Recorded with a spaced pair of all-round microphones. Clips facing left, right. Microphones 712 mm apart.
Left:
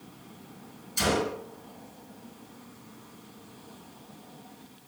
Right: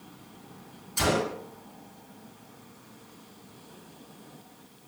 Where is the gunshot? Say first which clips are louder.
Even; 75° right (ahead or behind), 3 m.